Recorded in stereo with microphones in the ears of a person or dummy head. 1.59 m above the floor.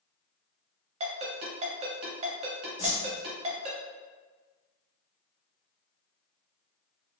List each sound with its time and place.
1.0 s a ringtone: 35° right (ahead or behind), 0.8 m
2.8 s a whoosh: 35° left (ahead or behind), 0.9 m